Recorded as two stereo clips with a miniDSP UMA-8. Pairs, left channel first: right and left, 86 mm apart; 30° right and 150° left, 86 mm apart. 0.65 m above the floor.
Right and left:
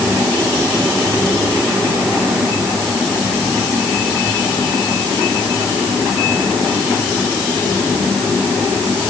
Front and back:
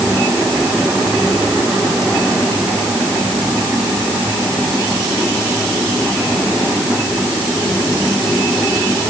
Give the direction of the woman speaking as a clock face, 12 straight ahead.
No woman speaking in this recording.